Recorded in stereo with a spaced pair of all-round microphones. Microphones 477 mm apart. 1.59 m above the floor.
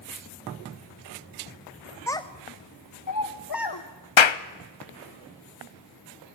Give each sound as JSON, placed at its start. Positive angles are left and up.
{"t": 2.1, "sound": "a child speaking", "side_deg": 5, "distance_m": 0.6}
{"t": 4.2, "sound": "a clap", "side_deg": 70, "distance_m": 0.6}